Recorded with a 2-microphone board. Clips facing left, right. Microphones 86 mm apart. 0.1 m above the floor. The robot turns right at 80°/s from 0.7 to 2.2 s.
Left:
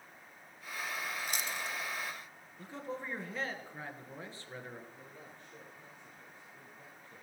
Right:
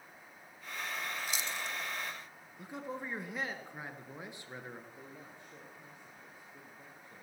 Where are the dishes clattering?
I don't hear dishes clattering.